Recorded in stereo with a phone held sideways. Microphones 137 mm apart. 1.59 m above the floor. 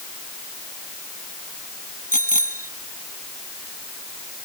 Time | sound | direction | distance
2.1 | a bicycle bell | 85° left | ?